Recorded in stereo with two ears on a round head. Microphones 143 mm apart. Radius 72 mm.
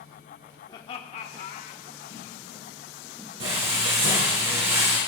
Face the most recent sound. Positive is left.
turn(degrees=-85)